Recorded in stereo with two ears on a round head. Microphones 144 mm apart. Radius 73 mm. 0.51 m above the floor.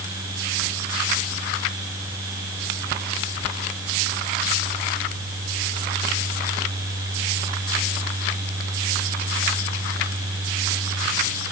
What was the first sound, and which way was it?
Only background noise.